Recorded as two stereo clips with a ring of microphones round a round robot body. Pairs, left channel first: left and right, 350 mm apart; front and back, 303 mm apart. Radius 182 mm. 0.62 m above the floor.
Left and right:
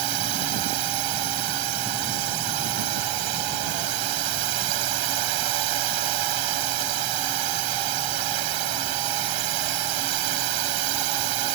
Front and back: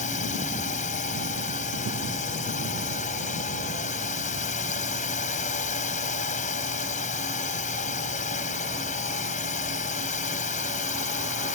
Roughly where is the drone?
Right.